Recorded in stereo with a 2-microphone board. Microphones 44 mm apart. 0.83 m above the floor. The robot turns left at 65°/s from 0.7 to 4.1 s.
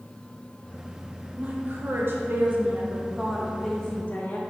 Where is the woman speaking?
45° right, 0.5 m; by 4.4 s 140° left, 0.5 m.